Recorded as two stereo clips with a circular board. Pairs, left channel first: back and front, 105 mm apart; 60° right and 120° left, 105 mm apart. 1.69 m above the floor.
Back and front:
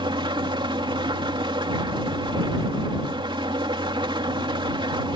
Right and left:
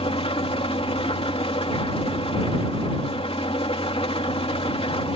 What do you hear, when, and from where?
0.0 s an engine running: 35° right